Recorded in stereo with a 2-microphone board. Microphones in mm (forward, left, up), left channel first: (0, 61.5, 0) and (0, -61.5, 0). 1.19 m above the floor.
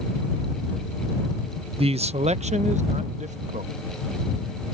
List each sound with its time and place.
1.8 s a man speaking: 50° right (ahead or behind); by 3.7 s 80° right